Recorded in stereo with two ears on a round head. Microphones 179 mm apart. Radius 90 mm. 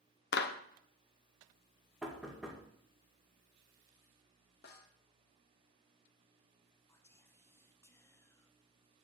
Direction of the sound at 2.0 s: Centre (ahead or behind).